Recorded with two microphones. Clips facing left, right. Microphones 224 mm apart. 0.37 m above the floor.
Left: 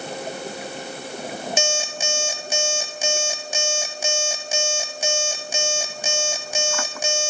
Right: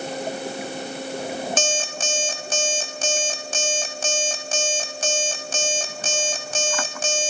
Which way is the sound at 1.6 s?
10° left (ahead or behind).